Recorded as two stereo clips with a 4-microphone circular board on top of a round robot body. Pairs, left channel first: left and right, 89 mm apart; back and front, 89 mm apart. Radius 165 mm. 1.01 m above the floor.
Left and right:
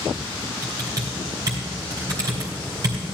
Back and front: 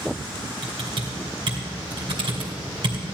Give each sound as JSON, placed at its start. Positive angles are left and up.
{"t": 0.6, "sound": "typing on a keyboard", "azimuth_deg": -35, "distance_m": 1.9}